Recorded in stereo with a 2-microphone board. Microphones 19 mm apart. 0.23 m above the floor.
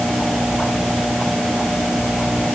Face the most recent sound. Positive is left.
No sound to turn to.